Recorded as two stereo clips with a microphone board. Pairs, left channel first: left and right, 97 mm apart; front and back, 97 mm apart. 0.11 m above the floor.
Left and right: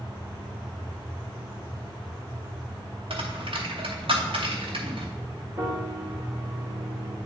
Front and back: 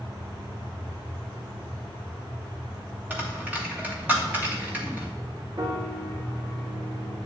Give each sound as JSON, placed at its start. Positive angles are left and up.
{"t": 3.1, "sound": "a dropped coin", "azimuth_deg": -110, "distance_m": 2.0}
{"t": 5.6, "sound": "a piano", "azimuth_deg": -150, "distance_m": 3.5}